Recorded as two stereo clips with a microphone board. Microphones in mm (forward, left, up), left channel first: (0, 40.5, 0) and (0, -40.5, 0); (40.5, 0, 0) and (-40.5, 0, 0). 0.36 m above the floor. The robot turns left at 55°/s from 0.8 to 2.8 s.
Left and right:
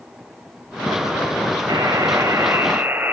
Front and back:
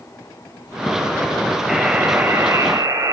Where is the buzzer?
95° right, 1.5 m; by 3.1 s 155° right, 1.5 m.